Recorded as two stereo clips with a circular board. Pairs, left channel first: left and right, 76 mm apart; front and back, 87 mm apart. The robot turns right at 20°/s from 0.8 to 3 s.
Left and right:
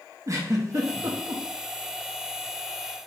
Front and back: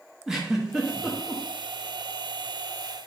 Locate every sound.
0.3 s a giggle: 95° right, 0.6 m; by 1.4 s 85° right, 0.6 m